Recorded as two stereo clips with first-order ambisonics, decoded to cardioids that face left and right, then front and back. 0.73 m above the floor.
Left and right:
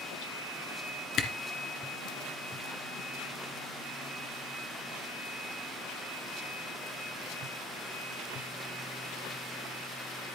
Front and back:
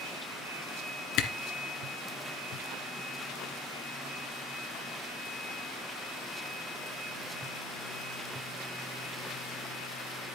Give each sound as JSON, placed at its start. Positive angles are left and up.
{"t": 1.2, "sound": "a camera shutter", "azimuth_deg": 35, "distance_m": 1.9}